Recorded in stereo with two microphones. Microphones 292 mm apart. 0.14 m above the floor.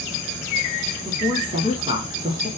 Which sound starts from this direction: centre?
A woman speaking, at 1.1 s.